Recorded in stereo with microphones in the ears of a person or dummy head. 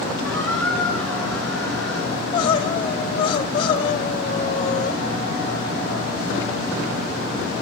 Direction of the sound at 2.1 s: 30° left (ahead or behind).